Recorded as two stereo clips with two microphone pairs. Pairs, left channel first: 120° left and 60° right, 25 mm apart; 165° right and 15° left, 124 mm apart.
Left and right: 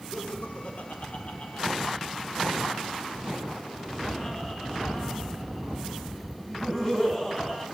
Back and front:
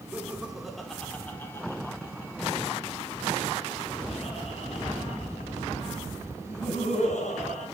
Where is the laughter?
95° left, 1.7 m; by 7.7 s 170° right, 4 m.